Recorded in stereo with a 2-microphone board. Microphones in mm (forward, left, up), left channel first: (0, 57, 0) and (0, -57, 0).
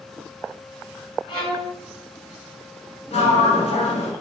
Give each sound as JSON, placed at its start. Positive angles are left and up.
{"t": 1.3, "sound": "a violin", "side_deg": 50, "distance_m": 1.7}
{"t": 3.1, "sound": "a sliding door", "side_deg": 75, "distance_m": 1.2}